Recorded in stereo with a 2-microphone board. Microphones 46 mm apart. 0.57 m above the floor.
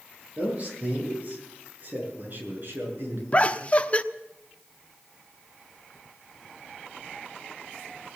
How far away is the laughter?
About 1.0 m.